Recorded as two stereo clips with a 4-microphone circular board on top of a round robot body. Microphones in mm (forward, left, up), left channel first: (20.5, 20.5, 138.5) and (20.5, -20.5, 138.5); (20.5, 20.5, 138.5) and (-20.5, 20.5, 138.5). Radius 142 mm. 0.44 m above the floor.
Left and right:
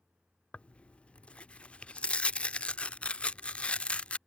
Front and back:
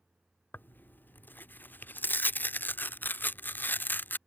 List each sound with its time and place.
0.5 s tearing paper: 30° left